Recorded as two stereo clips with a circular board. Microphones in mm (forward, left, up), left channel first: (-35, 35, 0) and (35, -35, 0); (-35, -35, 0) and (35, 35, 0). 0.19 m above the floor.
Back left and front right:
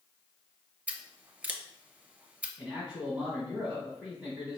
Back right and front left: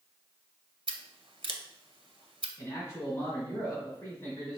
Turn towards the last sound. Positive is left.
turn(degrees=-115)